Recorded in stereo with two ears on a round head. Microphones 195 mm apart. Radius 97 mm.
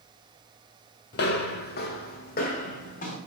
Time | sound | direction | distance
1.1 | footsteps | 50° left (ahead or behind) | 0.7 m